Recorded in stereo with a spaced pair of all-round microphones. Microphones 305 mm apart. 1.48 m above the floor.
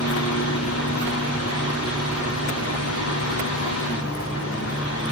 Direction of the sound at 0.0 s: 50° left (ahead or behind).